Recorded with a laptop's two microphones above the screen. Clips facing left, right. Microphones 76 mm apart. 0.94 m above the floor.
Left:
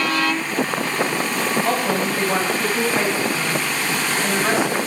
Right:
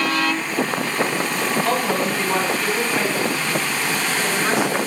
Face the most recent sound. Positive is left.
turn(degrees=35)  # may be behind; listen again after turning